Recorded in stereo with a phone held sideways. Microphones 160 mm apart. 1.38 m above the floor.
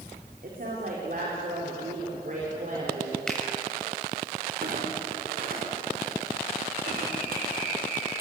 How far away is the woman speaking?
About 4.5 m.